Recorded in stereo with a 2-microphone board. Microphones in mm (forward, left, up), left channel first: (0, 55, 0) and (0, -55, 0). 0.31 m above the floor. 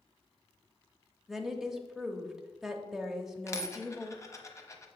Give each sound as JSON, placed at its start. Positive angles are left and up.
{"t": 1.3, "sound": "a woman speaking", "side_deg": 0, "distance_m": 0.9}
{"t": 3.5, "sound": "a dropped coin", "side_deg": 25, "distance_m": 0.9}